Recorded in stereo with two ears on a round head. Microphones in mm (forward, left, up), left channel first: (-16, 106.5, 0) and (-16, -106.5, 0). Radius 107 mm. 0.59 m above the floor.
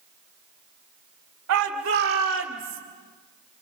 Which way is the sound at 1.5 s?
60° right (ahead or behind).